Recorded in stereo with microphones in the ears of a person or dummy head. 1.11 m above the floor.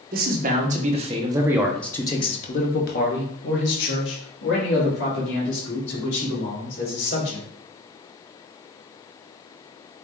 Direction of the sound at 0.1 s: 45° right (ahead or behind).